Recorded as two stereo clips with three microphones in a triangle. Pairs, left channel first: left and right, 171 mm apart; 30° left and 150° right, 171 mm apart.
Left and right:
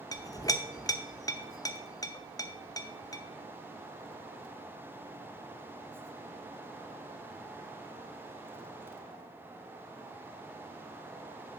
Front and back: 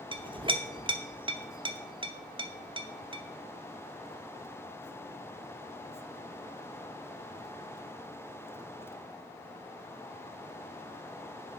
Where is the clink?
160° left, 0.5 m.